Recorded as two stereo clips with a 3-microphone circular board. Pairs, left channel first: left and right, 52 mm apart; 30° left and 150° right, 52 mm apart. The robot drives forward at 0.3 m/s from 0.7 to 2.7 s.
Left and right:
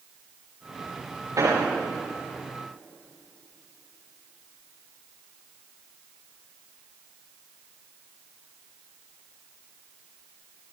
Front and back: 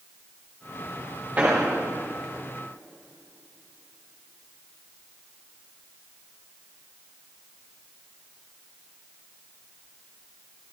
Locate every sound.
1.4 s an explosion: 95° right, 7.5 m